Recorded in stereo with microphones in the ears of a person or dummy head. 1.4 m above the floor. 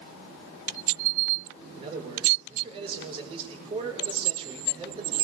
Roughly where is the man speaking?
Right.